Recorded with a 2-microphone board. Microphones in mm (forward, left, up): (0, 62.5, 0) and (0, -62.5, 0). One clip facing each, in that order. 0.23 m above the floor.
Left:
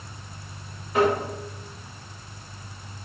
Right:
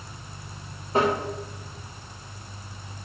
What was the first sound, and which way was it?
Tapping, 30° right (ahead or behind).